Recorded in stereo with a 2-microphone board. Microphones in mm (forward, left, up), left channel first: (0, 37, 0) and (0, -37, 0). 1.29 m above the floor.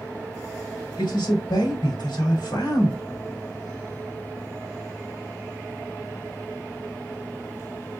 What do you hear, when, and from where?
1.0 s a man speaking: 75° left (ahead or behind), 2.5 m